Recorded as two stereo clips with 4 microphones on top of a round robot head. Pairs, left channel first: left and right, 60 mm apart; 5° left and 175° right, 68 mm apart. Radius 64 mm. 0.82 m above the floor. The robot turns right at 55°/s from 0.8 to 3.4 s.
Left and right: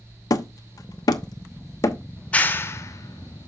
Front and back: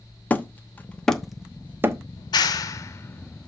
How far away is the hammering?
About 0.9 m.